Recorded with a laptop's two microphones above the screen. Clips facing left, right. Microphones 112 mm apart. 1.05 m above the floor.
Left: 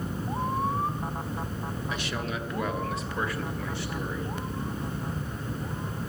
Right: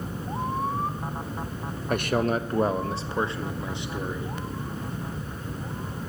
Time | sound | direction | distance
1.9 | a man speaking | 55° right (ahead or behind) | 0.8 m